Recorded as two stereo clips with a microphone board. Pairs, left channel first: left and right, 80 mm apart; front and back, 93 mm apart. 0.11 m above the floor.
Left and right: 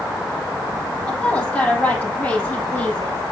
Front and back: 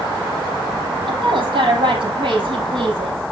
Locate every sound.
1.1 s a woman speaking: 165° left, 4 m